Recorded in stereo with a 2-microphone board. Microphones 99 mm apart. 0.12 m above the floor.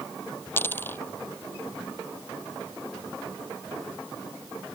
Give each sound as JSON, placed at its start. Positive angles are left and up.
{"t": 0.6, "sound": "a dropped coin", "side_deg": 20}